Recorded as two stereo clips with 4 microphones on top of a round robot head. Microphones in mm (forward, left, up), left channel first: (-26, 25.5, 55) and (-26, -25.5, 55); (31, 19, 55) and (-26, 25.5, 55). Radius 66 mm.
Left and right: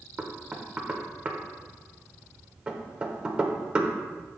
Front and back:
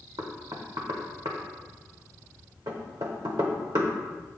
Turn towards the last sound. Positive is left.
turn(degrees=-155)